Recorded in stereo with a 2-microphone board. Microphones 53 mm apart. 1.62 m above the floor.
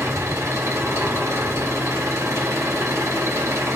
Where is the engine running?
65° right (ahead or behind), 7 m.